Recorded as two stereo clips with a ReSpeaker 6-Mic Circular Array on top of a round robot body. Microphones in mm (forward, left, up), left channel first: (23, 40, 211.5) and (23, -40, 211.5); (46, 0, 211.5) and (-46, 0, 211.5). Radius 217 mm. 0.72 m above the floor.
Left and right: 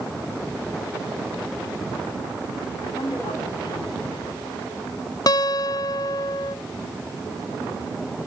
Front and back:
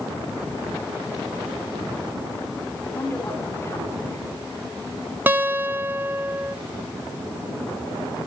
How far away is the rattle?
No rattle in this recording.